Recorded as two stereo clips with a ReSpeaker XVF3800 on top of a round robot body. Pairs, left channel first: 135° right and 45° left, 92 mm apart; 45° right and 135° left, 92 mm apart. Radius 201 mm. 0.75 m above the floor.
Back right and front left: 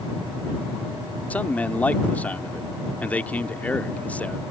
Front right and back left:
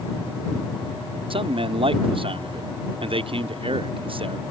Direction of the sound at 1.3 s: 150° left.